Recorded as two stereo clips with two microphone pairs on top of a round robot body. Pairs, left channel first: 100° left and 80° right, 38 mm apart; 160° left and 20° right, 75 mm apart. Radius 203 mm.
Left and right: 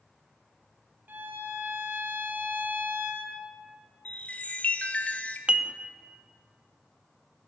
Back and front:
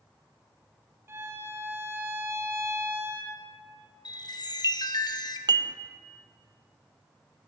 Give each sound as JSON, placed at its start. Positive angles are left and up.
{"t": 1.1, "sound": "a violin", "azimuth_deg": -75, "distance_m": 1.3}
{"t": 4.0, "sound": "a chime", "azimuth_deg": 150, "distance_m": 0.7}
{"t": 5.5, "sound": "dishes clattering", "azimuth_deg": -15, "distance_m": 0.6}